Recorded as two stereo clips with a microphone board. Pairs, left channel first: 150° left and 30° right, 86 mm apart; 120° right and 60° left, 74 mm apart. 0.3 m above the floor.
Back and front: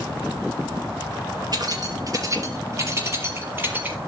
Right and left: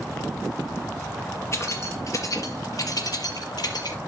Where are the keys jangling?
70° right, 3.5 m; by 4.0 s 100° right, 4.5 m.